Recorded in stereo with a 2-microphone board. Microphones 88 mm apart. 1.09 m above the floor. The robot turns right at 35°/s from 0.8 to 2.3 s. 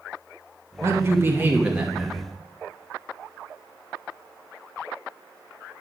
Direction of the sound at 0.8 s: 55° right.